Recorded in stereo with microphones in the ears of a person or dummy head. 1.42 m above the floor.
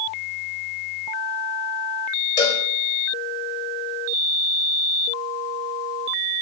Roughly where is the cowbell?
Left.